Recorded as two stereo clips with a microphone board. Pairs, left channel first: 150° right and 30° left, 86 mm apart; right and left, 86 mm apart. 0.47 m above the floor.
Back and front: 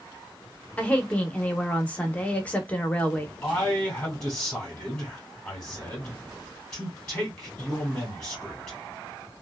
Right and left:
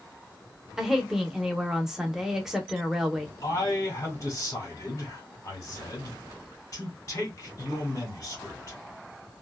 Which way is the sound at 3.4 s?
75° right.